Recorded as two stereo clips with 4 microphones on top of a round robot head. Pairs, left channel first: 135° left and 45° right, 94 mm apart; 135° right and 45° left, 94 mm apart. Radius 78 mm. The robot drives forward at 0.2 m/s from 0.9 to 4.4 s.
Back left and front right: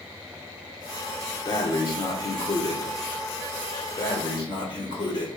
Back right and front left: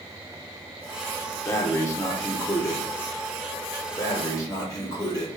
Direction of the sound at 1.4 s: 170° left.